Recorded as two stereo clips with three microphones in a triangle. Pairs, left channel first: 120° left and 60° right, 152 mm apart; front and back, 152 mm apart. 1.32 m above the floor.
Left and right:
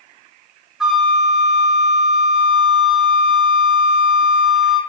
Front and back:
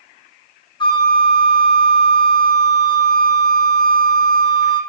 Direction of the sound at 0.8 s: 25° left.